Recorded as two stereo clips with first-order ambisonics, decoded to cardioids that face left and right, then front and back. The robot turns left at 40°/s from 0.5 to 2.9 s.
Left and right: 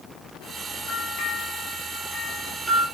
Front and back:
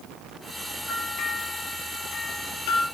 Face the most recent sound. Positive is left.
turn(degrees=-15)